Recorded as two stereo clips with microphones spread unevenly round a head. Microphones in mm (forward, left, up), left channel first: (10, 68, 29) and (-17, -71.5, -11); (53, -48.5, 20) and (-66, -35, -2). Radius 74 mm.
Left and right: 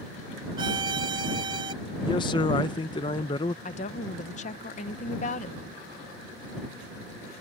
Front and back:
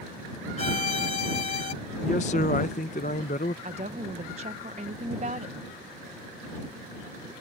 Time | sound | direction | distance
0.6 | a violin | 35° right | ?
2.0 | a man speaking | 25° left | ?
3.6 | a woman speaking | 120° left | ?